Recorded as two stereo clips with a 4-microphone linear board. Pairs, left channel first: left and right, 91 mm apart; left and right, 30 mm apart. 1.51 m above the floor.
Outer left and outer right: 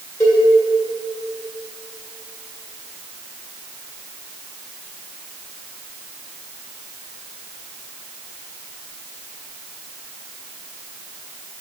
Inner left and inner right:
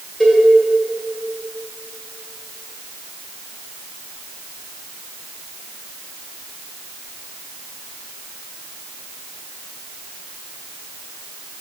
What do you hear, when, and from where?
0.2 s a cowbell: 35° left (ahead or behind), 1.7 m